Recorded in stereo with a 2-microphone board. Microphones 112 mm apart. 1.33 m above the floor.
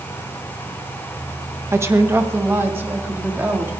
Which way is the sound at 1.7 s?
25° right (ahead or behind).